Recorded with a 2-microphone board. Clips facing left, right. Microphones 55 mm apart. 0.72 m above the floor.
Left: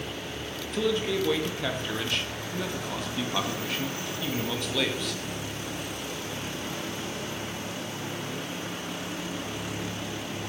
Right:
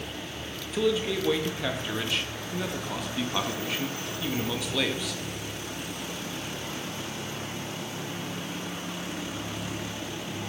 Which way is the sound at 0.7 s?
5° right (ahead or behind).